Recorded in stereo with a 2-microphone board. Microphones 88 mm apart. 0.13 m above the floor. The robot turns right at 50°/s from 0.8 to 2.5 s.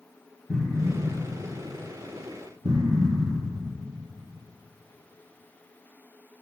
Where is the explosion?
Centre (ahead or behind), 2.5 m; by 3.6 s 60° right (ahead or behind), 2.5 m.